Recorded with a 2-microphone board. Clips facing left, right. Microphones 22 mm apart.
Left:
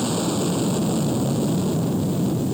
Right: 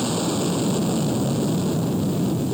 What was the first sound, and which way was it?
An aircraft, 10° right (ahead or behind).